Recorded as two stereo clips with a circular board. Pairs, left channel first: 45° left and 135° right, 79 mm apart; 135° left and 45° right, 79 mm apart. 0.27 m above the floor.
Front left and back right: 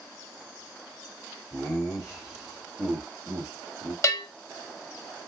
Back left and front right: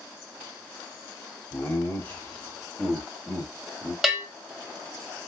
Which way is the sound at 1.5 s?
110° left.